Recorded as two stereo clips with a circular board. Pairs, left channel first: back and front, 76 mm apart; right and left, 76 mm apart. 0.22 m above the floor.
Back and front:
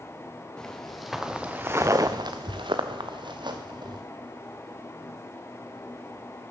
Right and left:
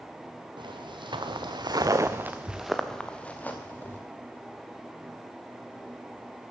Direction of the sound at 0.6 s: 100° left.